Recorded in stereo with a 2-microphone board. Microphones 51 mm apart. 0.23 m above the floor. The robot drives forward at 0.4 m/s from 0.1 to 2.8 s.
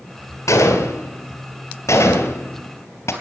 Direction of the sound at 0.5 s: 80° left.